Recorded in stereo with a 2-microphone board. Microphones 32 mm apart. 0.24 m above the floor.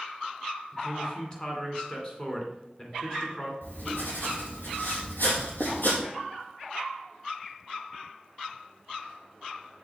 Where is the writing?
80° left, 3.5 m.